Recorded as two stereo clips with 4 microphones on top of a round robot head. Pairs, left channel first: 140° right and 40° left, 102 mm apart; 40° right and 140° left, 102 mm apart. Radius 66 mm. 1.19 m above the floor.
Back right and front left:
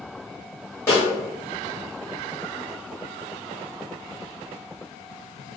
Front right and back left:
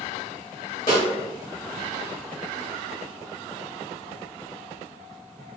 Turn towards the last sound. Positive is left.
turn(degrees=-75)